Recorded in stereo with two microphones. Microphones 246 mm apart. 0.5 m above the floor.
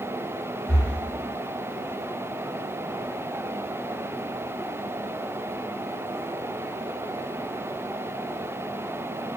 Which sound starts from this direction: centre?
Breathing, at 0.7 s.